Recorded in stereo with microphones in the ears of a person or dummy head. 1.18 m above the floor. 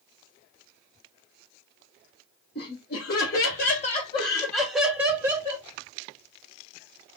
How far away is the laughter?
About 1.2 m.